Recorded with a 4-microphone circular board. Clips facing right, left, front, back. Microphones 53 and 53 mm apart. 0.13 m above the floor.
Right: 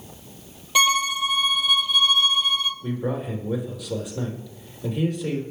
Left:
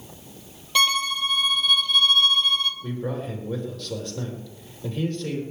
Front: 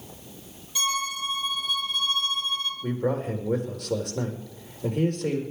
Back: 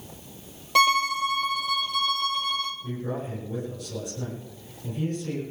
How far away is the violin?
About 1.4 m.